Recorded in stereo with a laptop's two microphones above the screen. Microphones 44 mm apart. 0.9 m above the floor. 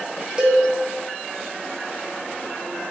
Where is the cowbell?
20° right (ahead or behind), 0.5 m.